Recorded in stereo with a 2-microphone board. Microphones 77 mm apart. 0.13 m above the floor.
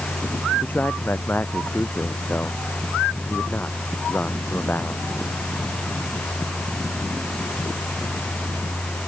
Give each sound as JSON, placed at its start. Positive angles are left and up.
{"t": 0.6, "sound": "a man speaking", "side_deg": 25}